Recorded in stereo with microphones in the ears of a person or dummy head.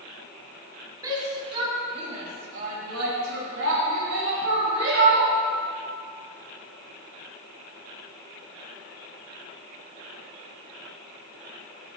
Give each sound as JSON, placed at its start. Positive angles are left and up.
{"t": 1.0, "sound": "a shout", "side_deg": -20, "distance_m": 4.0}